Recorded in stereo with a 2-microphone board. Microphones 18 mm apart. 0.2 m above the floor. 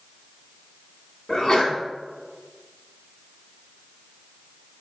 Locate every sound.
1.3 s a sneeze: 25° left (ahead or behind), 1.3 m